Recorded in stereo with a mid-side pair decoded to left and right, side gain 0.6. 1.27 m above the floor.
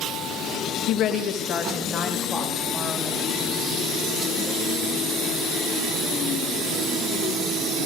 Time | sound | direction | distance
0.9 | a woman speaking | 65° left | 1.2 m